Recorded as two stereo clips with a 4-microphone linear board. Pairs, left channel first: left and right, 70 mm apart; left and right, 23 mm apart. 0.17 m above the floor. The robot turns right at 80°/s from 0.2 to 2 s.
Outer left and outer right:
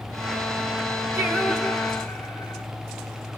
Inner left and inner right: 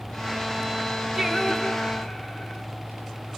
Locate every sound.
1.1 s singing: 45° right, 1.7 m; by 2.6 s 25° left, 1.7 m